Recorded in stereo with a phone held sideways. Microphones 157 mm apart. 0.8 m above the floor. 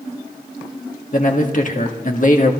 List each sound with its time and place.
1.1 s a man speaking: 50° left (ahead or behind), 1.6 m